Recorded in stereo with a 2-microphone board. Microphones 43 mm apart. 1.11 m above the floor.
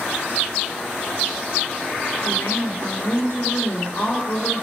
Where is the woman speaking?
80° left, 2 m.